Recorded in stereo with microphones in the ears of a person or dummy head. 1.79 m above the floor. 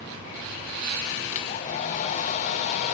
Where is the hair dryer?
35° left (ahead or behind), 0.7 m.